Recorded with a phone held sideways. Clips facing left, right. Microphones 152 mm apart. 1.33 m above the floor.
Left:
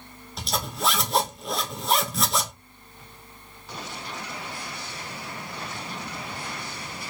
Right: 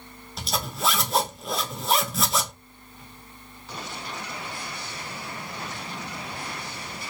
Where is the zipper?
Centre (ahead or behind), 0.8 m.